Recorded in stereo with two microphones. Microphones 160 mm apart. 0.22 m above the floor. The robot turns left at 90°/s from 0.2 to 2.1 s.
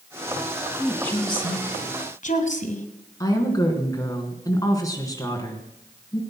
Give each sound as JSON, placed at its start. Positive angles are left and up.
{"t": 0.8, "sound": "a woman speaking", "azimuth_deg": -170, "distance_m": 2.0}
{"t": 3.2, "sound": "a woman speaking", "side_deg": 20, "distance_m": 3.0}